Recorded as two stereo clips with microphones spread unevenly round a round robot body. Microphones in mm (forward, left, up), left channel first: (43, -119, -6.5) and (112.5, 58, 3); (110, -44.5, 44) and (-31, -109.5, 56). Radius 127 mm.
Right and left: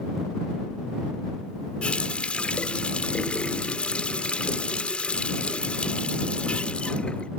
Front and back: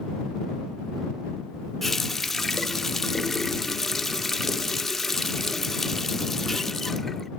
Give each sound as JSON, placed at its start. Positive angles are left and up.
{"t": 1.8, "sound": "a running tap", "azimuth_deg": -45}